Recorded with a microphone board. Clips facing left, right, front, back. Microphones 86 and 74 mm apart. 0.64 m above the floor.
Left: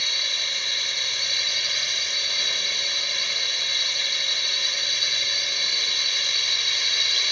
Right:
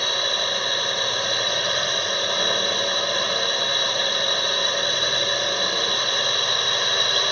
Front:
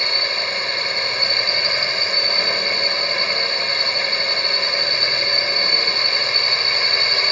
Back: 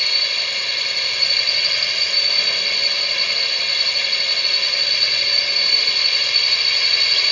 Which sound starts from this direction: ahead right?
A drone, at 0.0 s.